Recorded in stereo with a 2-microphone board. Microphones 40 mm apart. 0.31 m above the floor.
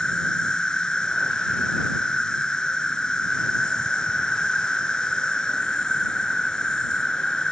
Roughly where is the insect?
Centre.